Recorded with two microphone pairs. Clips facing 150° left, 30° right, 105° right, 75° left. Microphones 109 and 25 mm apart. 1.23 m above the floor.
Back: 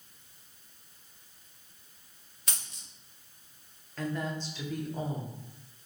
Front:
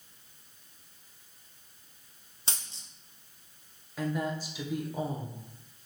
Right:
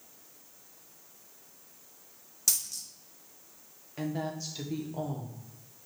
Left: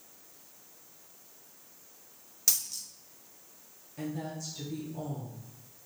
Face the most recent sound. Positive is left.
turn(degrees=-110)